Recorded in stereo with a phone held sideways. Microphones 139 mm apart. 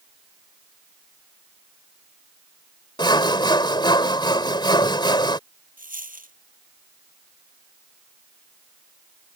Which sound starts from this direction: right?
A dropped coin, at 5.8 s.